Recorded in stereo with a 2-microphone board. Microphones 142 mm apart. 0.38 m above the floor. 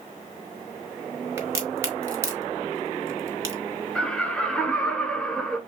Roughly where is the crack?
Centre.